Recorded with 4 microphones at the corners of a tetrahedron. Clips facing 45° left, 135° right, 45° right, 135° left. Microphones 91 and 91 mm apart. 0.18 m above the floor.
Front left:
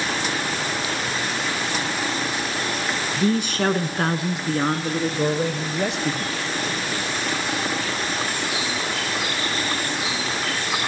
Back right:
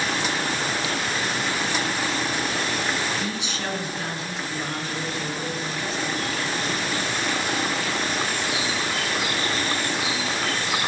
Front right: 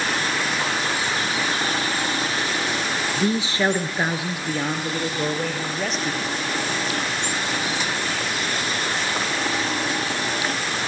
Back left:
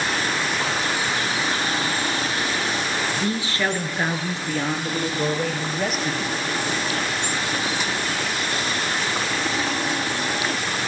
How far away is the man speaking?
About 1.8 m.